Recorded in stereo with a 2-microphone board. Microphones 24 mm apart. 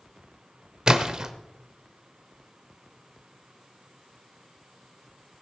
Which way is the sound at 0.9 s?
30° right (ahead or behind).